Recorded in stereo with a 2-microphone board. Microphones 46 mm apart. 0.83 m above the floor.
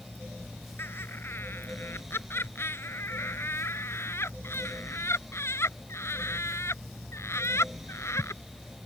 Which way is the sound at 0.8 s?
55° left (ahead or behind).